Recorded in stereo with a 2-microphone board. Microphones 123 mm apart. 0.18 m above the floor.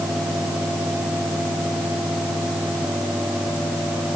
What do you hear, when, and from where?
Only background noise.